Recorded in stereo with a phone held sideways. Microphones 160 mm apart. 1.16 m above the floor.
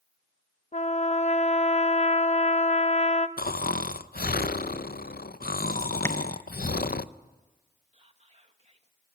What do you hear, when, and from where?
0.7 s a trumpet: 45° left (ahead or behind), 1.0 m
3.4 s snoring: 65° left (ahead or behind), 0.6 m
6.0 s tapping: 15° left (ahead or behind), 1.3 m
7.9 s whispering: 40° right (ahead or behind), 1.9 m